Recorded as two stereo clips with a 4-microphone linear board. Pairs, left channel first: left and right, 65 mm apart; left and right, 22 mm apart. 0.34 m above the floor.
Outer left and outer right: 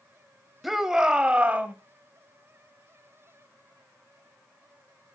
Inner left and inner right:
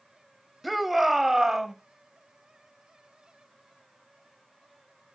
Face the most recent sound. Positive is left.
turn(degrees=-25)  # may be behind; listen again after turning